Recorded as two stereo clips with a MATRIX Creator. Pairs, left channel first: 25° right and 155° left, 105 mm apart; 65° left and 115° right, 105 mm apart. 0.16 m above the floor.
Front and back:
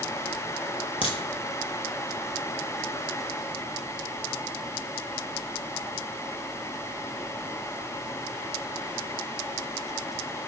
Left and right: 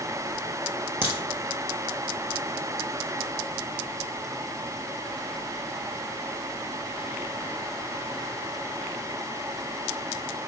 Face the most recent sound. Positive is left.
turn(degrees=-50)